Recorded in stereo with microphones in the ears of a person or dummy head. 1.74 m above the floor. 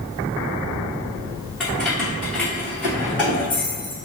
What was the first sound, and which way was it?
Keys jangling, centre (ahead or behind).